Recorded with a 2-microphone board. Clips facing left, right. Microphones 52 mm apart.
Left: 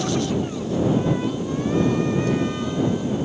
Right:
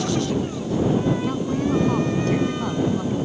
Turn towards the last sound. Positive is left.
turn(degrees=-55)  # may be behind; listen again after turning